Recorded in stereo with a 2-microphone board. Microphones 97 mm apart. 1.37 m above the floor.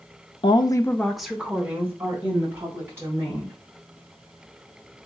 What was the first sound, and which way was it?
A woman speaking, 65° left (ahead or behind).